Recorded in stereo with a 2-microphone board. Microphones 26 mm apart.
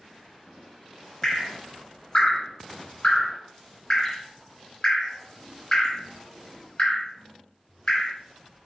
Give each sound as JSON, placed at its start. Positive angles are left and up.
{"t": 1.2, "sound": "dripping", "side_deg": 30, "distance_m": 0.8}